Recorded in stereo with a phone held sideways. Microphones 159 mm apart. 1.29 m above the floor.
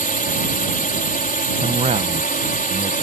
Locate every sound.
0.0 s a drone: 65° left (ahead or behind)
1.6 s a man speaking: 45° right (ahead or behind)